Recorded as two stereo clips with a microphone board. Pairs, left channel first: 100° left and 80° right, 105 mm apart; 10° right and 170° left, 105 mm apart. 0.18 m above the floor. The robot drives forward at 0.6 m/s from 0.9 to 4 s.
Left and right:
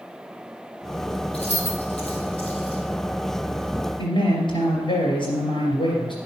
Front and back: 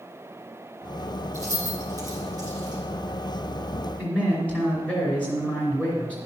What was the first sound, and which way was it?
Keys jangling, 110° left.